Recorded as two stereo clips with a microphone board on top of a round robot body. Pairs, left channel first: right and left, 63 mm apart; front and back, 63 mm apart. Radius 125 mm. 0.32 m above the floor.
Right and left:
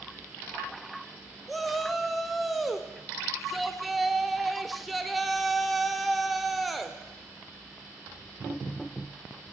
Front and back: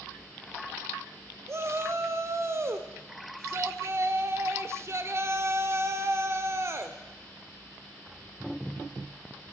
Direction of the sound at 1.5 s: Straight behind.